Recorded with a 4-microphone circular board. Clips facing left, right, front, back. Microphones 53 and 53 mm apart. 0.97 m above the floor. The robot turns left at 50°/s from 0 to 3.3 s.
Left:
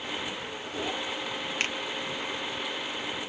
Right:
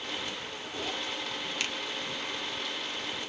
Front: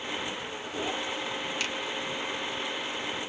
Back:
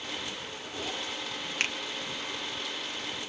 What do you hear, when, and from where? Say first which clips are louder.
1.6 s a finger snap: left 5 dB, back 5 dB; 140° left, 0.5 m; by 1.8 s 130° left, 0.5 m